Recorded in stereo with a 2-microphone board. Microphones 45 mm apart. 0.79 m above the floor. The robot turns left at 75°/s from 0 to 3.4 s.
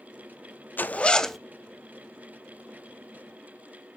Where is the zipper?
50° left, 0.6 m; by 1.4 s straight ahead, 0.6 m.